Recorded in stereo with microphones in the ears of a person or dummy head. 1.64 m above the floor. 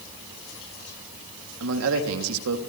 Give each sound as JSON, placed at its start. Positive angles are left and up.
{"t": 1.6, "sound": "a man speaking", "side_deg": -85, "distance_m": 3.0}